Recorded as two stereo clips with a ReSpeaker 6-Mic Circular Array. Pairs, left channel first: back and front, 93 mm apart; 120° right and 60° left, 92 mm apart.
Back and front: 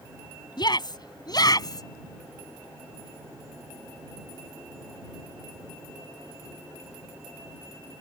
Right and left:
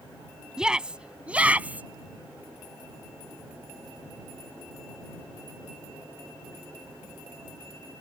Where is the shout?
140° left; by 1.9 s 135° left.